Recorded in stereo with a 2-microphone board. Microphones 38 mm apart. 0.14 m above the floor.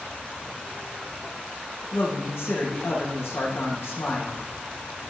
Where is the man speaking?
75° left (ahead or behind), 7 m.